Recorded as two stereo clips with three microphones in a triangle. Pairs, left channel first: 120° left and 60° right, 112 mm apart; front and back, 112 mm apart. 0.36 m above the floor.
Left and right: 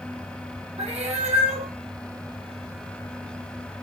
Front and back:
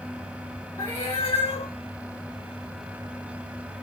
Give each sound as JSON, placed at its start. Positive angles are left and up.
{"t": 0.8, "sound": "a cat meowing", "azimuth_deg": -55, "distance_m": 7.0}